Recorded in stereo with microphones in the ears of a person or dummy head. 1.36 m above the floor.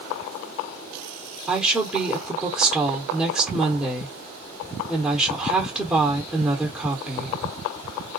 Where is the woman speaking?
Centre (ahead or behind), 0.9 m.